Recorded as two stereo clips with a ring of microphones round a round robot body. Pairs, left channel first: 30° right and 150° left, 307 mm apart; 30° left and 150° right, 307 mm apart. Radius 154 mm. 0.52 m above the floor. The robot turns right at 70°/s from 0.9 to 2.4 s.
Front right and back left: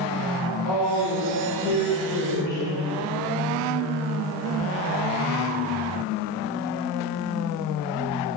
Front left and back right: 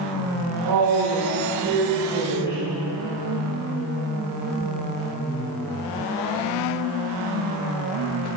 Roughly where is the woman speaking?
Behind right.